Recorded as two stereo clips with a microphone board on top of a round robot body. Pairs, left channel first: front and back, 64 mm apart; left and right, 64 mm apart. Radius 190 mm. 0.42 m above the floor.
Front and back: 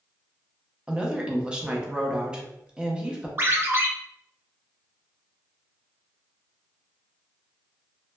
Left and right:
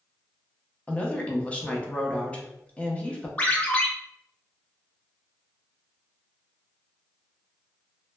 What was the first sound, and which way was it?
A woman speaking, 125° left.